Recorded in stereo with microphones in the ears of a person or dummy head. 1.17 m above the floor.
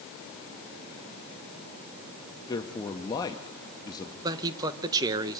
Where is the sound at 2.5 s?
25° left (ahead or behind), 1.2 m.